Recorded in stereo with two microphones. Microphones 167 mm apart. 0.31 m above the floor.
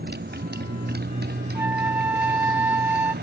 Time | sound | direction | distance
0.0 | a motorcycle | 75° right (ahead or behind) | ?
1.6 | a flute | 10° right (ahead or behind) | ?